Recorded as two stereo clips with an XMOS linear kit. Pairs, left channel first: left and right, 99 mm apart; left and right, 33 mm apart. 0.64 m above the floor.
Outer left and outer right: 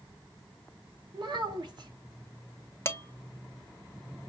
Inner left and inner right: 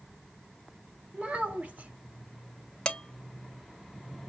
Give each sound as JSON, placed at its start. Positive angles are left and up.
{"t": 1.1, "sound": "a child speaking", "side_deg": -55, "distance_m": 1.2}
{"t": 2.9, "sound": "dishes clattering", "side_deg": 30, "distance_m": 0.9}